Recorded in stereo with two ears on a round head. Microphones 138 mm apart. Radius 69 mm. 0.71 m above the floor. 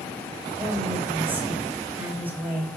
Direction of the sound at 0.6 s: 10° right (ahead or behind).